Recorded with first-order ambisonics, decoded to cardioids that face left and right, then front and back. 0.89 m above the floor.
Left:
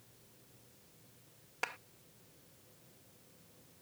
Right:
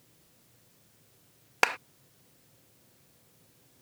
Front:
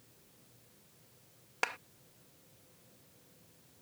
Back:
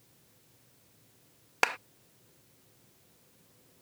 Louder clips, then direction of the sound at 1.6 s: Right 14 dB, back 7 dB; 120° right.